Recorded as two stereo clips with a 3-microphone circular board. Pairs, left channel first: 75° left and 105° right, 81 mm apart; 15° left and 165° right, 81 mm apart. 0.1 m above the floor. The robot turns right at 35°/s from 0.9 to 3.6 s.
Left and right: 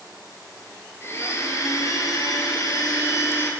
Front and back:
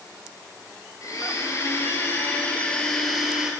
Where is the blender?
30° left, 2.5 m; by 3.5 s 120° left, 2.5 m.